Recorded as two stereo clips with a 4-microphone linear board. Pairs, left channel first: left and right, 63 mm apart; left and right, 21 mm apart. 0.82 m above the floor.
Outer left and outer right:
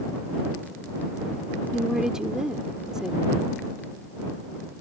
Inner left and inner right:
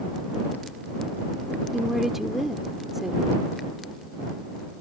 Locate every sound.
1.7 s a woman speaking: 10° right (ahead or behind)